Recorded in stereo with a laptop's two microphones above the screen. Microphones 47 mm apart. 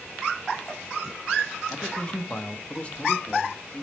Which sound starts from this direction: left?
A man speaking, at 1.7 s.